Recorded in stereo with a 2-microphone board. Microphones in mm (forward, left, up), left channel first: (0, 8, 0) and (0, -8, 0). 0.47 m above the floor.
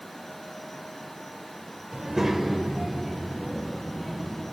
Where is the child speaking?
35° right (ahead or behind), 1.4 m; by 4.4 s centre (ahead or behind), 4 m.